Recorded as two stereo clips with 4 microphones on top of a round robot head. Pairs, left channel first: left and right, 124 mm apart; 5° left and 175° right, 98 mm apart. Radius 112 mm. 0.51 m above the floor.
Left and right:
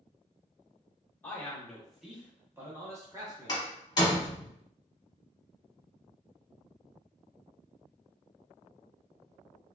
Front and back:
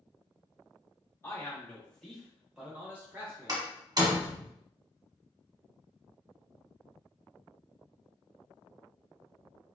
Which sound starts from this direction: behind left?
A door slam, at 3.5 s.